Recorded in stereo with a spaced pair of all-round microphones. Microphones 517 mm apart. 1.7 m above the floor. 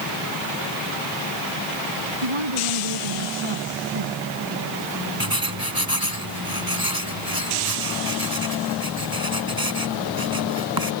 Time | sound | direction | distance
2.2 | a woman speaking | 75° right (ahead or behind) | ?
5.2 | writing | 45° right (ahead or behind) | ?